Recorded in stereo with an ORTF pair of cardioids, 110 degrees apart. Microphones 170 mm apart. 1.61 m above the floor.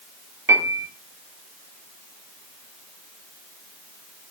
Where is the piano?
20° right, 1.3 m.